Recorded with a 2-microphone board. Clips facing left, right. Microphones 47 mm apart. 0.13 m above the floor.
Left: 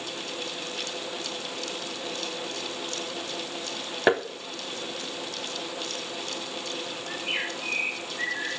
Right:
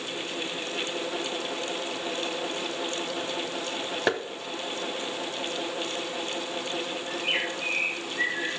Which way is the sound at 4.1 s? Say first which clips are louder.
Left 5 dB; 15° left (ahead or behind).